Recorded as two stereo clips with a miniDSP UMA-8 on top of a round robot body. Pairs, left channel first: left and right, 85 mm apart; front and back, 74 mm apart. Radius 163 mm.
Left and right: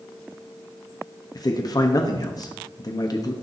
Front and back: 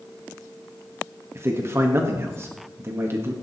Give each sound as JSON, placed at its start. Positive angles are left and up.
{"t": 1.4, "sound": "a man speaking", "azimuth_deg": 130, "distance_m": 1.5}